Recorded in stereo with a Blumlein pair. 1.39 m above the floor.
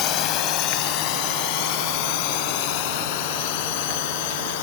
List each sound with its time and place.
0.0 s a drone: 35° left; by 4.6 s 50° left